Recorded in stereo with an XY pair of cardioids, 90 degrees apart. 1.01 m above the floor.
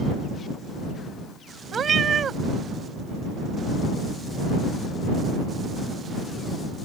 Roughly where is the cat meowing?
Ahead right.